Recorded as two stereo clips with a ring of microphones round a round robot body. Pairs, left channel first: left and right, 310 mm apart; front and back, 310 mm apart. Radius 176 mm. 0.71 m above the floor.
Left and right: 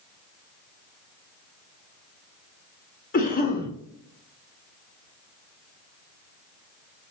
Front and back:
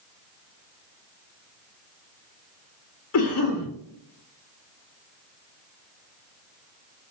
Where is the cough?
30° left, 1.0 m.